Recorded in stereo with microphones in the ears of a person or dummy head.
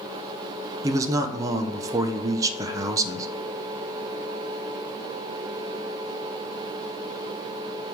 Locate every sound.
0.8 s a man speaking: 20° right (ahead or behind), 0.6 m